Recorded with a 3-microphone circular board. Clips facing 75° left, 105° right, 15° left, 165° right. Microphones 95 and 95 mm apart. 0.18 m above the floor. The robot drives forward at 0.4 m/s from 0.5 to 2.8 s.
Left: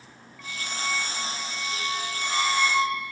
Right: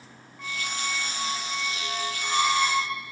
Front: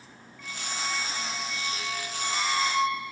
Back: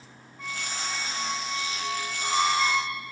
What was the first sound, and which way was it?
A squeak, 150° right.